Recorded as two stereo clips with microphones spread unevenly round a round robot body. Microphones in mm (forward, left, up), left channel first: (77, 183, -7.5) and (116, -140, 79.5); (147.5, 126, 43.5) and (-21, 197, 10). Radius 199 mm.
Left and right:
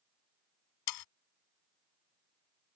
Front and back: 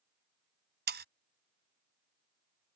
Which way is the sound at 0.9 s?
120° left.